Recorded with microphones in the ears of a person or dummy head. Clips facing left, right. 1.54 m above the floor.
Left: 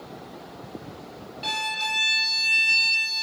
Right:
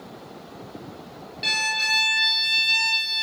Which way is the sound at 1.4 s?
30° right (ahead or behind).